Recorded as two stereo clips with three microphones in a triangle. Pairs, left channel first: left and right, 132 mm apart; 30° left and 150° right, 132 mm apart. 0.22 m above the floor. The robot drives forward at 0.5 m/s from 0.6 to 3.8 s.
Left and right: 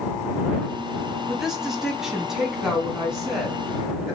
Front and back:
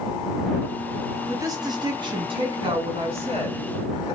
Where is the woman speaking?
170° right, 1.0 m; by 4.2 s straight behind, 1.9 m.